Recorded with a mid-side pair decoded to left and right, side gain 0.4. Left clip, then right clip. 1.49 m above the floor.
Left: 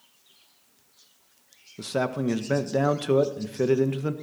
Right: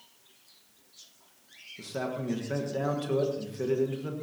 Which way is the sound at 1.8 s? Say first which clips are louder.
Left 7 dB; 65° left.